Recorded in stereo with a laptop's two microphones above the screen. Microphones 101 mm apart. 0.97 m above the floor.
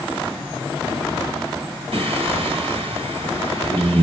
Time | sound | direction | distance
1.9 | singing | 65° right (ahead or behind) | 1.5 m